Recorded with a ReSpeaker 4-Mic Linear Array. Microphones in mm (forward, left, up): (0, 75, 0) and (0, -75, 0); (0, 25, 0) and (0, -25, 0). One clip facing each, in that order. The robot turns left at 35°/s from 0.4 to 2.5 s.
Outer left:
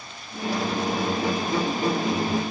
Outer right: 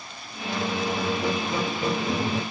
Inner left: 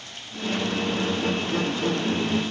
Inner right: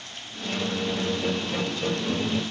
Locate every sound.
0.4 s a squeak: 15° left, 1.7 m; by 2.4 s 55° right, 1.7 m